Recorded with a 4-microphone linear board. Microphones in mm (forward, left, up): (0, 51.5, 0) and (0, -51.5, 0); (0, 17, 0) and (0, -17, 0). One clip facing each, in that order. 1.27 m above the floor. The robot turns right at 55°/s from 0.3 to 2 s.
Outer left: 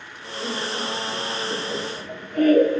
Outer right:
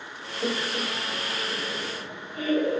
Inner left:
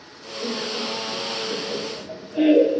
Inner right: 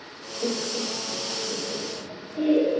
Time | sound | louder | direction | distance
0.4 | laughter | even, inner left 1 dB | 35° right (ahead or behind) | 1.5 m